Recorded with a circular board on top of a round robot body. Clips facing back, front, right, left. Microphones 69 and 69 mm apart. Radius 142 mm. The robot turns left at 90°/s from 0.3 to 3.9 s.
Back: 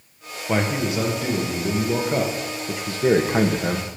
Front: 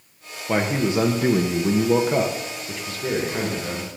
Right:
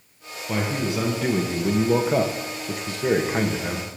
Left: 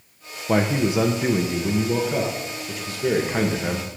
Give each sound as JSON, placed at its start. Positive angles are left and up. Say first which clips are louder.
{"t": 0.5, "sound": "a man speaking", "louder": "front 1 dB, left 5 dB", "azimuth_deg": 80, "distance_m": 1.3}